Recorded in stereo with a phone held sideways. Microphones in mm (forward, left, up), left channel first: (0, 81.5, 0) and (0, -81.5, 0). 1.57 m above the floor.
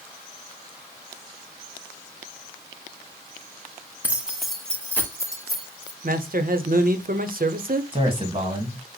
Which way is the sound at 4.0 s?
10° right (ahead or behind).